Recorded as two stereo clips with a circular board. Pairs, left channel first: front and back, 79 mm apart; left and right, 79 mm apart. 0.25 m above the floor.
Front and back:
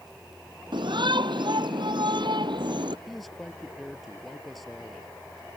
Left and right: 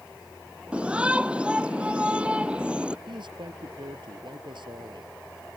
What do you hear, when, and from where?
0.7 s a shout: 165° right
3.1 s a man speaking: 90° right